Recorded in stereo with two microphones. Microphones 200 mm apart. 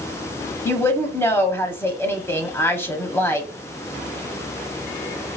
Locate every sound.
0.7 s a woman speaking: 10° left (ahead or behind), 0.9 m